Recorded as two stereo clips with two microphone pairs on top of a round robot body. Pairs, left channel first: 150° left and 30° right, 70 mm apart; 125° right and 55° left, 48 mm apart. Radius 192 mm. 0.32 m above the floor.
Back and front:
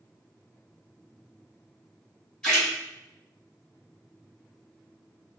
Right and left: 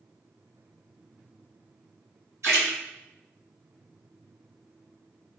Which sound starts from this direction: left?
A splash, at 2.4 s.